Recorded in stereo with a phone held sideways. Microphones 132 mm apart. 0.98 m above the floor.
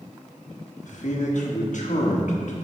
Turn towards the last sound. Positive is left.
turn(degrees=65)  # may be behind; listen again after turning